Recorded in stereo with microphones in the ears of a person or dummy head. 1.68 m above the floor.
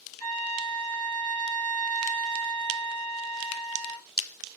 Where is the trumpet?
35° right (ahead or behind), 1.6 m.